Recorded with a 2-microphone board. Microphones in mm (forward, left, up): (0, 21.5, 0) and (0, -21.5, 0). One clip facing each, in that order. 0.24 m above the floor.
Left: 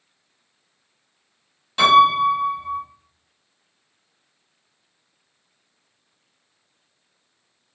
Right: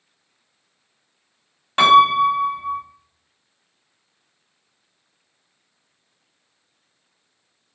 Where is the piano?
45° right (ahead or behind), 0.8 m.